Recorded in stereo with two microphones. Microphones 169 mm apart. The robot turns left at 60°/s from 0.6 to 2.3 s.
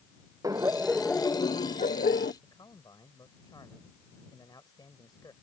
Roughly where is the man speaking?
Left.